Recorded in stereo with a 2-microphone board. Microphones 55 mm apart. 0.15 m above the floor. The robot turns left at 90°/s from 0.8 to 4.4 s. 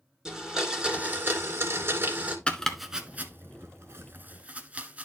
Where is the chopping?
20° left (ahead or behind), 1.0 m; by 5.0 s 25° right (ahead or behind), 1.0 m.